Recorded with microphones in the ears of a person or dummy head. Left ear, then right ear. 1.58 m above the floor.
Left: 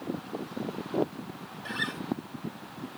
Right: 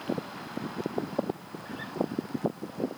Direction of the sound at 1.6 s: 65° left (ahead or behind).